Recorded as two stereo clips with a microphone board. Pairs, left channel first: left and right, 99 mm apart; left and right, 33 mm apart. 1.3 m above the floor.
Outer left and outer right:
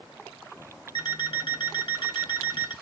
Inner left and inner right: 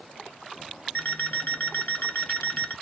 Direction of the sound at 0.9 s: 55° left (ahead or behind).